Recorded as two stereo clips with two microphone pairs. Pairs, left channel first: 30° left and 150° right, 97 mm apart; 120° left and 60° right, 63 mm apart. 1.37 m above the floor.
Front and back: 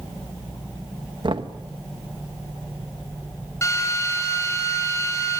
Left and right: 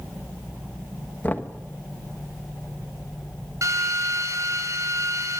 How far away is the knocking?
About 1.3 m.